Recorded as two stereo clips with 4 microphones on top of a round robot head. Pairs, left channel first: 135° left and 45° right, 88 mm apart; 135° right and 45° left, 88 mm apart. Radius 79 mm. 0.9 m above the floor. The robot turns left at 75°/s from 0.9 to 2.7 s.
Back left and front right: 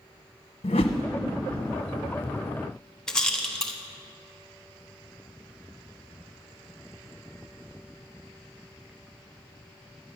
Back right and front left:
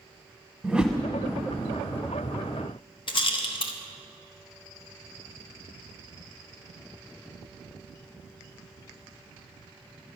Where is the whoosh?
125° left, 0.7 m; by 1.0 s 115° left, 0.7 m.